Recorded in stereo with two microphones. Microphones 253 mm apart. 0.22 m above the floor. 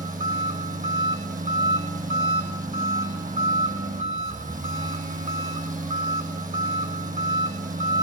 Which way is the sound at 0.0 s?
30° right (ahead or behind).